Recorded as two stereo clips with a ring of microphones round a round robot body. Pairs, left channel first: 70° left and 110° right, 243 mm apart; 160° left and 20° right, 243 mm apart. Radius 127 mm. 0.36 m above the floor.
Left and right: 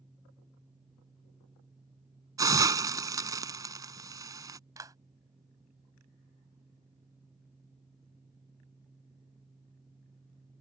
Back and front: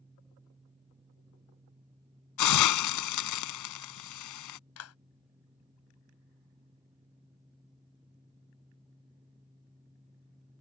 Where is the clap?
170° left.